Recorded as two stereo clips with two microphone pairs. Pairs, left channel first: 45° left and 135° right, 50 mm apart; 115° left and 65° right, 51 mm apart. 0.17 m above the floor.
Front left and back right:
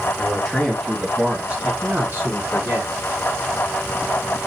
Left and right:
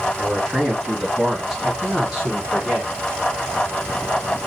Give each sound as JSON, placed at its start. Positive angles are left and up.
{"t": 0.2, "sound": "a man speaking", "azimuth_deg": 30, "distance_m": 1.6}